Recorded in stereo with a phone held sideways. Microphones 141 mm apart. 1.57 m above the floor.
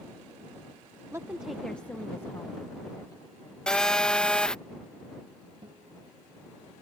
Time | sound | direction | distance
1.1 | a woman speaking | 20° right (ahead or behind) | ?
3.7 | a phone buzzing | 5° left (ahead or behind) | ?
5.6 | a guitar | 35° right (ahead or behind) | ?